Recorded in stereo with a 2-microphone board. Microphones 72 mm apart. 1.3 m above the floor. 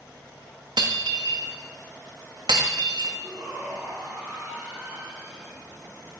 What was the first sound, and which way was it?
Breaking glass, 70° right (ahead or behind).